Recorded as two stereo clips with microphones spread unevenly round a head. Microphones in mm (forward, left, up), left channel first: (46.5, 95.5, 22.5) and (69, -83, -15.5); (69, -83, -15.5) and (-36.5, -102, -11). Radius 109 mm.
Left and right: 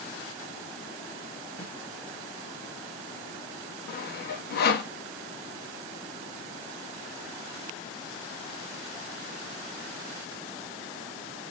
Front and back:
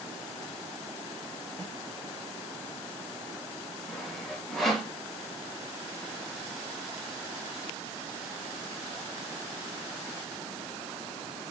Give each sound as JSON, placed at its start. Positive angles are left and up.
{"t": 1.6, "sound": "a snare drum", "azimuth_deg": 75, "distance_m": 0.8}
{"t": 3.9, "sound": "sawing", "azimuth_deg": 95, "distance_m": 0.7}